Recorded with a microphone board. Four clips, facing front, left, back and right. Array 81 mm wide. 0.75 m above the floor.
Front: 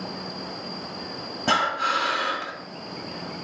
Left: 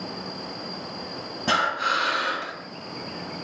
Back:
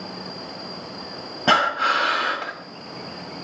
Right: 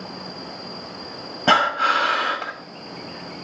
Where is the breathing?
125° right, 1.3 m.